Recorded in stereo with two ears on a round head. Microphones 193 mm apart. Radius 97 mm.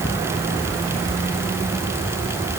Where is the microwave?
No microwave in this recording.